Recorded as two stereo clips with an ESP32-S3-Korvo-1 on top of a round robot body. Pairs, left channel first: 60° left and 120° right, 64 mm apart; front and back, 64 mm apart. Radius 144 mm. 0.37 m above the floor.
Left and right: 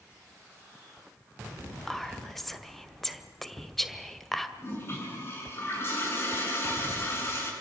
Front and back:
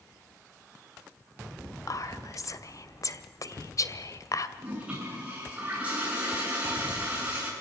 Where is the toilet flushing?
110° left, 7.5 m.